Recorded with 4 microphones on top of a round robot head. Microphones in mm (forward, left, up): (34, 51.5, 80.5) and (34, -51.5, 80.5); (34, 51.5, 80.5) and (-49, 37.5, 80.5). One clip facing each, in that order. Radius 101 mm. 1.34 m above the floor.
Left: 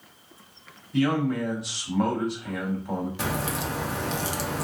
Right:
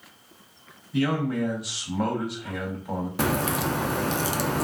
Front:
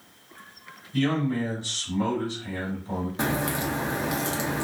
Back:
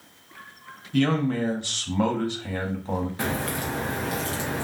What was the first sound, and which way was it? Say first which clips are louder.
A man speaking: left 1 dB, back 2 dB; 175° right.